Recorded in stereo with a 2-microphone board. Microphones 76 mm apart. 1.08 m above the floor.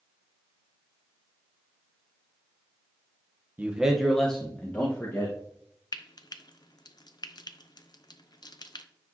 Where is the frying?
55° left (ahead or behind), 0.5 m.